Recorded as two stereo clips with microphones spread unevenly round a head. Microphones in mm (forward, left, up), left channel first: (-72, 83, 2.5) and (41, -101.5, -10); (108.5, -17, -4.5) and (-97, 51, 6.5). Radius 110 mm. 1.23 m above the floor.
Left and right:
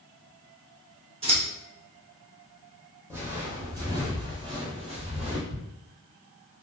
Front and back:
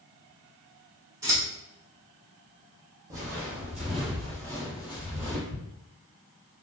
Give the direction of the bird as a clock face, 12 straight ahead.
I don't hear a bird.